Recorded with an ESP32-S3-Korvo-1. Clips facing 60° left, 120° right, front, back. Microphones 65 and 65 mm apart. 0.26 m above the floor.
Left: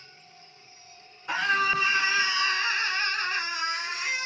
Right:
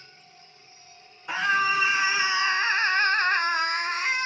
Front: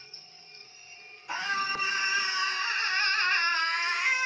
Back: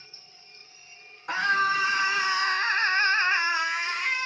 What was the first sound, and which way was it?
A scream, 155° left.